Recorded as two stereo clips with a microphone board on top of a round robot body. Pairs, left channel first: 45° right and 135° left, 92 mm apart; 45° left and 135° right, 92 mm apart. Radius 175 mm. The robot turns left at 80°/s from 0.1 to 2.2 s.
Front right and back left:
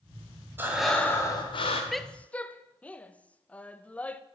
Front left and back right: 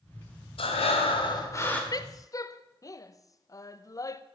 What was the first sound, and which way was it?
Breathing, 65° left.